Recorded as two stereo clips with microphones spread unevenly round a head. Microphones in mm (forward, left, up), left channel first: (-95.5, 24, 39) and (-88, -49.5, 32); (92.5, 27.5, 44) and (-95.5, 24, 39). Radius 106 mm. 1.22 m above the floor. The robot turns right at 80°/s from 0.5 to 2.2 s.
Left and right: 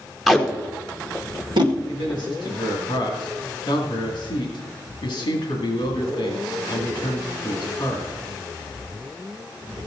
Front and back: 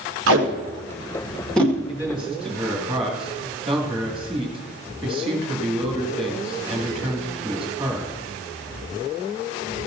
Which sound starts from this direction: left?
A man speaking, at 1.9 s.